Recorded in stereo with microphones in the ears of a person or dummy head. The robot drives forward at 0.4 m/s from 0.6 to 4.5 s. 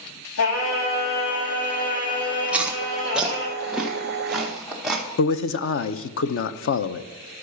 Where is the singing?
65° left (ahead or behind), 2.5 m; by 3.5 s 50° left (ahead or behind), 3.5 m.